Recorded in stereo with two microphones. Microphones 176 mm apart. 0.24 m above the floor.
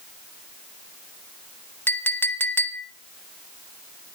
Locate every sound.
1.9 s a clink: 10° left (ahead or behind), 0.7 m